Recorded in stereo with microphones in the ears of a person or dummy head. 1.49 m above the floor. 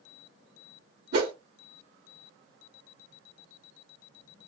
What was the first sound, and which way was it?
A whoosh, 55° right (ahead or behind).